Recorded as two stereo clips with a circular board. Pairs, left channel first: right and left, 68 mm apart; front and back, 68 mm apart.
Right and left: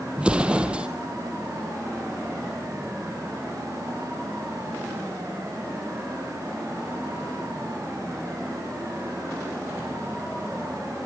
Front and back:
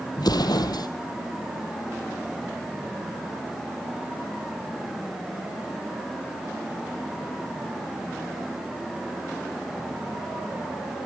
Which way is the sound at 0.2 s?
15° left.